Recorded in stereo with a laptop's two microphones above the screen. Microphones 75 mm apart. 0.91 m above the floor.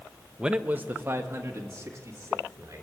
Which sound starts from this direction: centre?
A man speaking, at 0.4 s.